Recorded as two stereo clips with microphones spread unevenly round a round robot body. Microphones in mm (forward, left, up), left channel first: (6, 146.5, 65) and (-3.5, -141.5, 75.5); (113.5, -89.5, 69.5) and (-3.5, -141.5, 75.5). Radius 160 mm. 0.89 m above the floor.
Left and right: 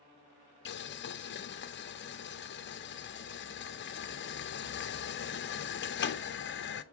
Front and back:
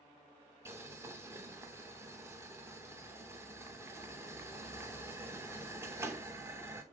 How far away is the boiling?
About 0.7 m.